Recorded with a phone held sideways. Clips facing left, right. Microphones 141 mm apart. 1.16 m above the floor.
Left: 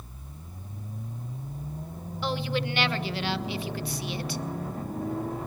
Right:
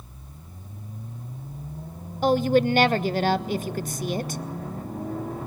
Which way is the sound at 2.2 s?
45° right (ahead or behind).